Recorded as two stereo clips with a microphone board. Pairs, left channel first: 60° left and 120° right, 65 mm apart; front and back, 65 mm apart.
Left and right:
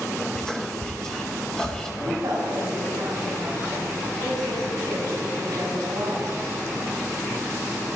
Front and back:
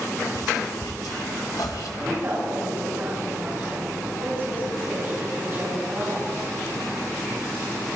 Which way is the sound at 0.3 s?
20° right.